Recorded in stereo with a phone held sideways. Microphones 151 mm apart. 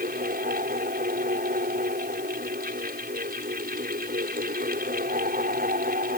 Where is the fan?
75° right (ahead or behind).